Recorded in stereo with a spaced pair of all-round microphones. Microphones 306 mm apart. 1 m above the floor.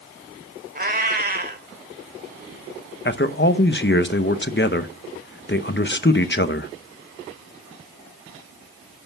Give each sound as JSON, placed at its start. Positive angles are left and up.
{"t": 0.8, "sound": "a cat meowing", "side_deg": -30, "distance_m": 1.8}
{"t": 3.0, "sound": "a man speaking", "side_deg": 35, "distance_m": 0.9}